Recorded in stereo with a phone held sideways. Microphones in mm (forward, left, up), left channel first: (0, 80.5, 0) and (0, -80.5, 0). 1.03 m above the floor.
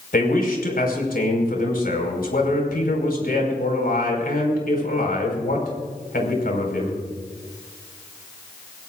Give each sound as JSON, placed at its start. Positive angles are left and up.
{"t": 0.1, "sound": "a man speaking", "side_deg": 80, "distance_m": 5.0}